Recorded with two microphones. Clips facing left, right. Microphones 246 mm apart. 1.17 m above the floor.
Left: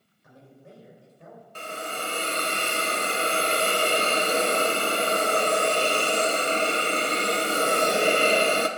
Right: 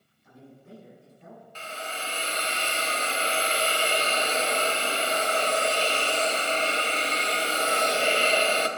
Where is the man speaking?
70° left (ahead or behind), 4.5 m.